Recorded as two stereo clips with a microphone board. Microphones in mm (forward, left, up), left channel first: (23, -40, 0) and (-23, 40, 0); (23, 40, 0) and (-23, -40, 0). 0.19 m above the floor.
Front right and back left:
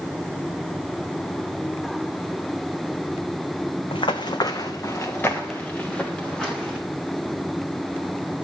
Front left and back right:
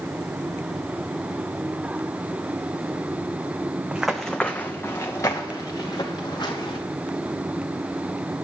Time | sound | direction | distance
3.9 | running footsteps | 40° right | 0.8 m